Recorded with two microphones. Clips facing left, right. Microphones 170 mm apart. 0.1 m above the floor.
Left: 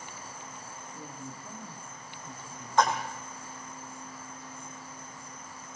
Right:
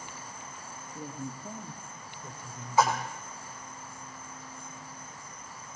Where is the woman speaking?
25° right (ahead or behind), 1.9 m; by 3.1 s 55° right (ahead or behind), 4 m.